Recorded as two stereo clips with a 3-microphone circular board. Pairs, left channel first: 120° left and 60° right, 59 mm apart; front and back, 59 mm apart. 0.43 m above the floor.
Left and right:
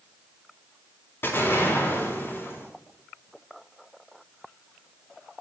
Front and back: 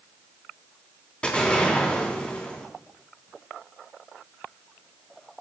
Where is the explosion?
70° left, 4 m.